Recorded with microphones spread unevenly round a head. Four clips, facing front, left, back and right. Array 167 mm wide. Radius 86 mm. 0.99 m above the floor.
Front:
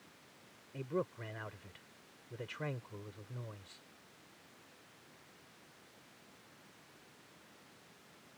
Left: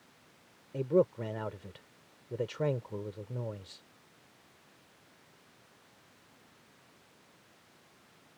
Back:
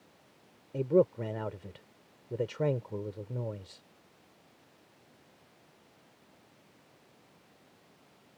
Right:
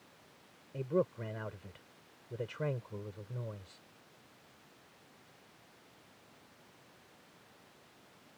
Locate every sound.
0.7 s a man speaking: 165° left